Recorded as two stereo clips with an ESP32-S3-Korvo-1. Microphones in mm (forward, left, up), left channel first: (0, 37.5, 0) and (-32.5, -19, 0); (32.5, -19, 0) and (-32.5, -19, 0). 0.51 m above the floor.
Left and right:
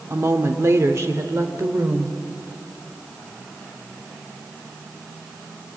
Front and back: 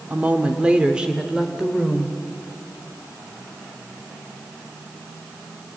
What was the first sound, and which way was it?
A woman speaking, 130° right.